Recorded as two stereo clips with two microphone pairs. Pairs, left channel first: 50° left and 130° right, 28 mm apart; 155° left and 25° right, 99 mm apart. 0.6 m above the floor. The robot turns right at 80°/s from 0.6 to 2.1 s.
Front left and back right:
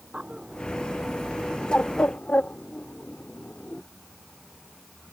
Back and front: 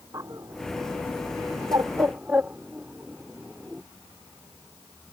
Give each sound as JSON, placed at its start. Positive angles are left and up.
{"t": 0.1, "sound": "a bird", "azimuth_deg": -75}